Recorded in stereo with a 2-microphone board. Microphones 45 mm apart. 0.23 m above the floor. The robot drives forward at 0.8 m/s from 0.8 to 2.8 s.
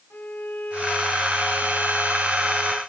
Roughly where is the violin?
Left.